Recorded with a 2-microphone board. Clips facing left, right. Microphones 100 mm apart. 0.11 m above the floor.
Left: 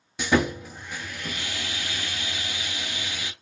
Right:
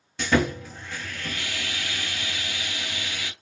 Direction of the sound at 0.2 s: 15° left (ahead or behind).